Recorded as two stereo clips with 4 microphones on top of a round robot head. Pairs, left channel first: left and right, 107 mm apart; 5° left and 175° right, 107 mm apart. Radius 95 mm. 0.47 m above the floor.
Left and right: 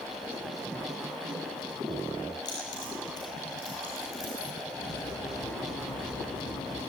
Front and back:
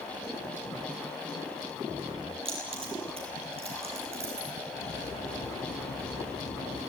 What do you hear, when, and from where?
2.5 s keys jangling: 150° left, 9.5 m; by 4.5 s 155° left, 8 m
4.7 s cutlery clinking: 35° left, 7.5 m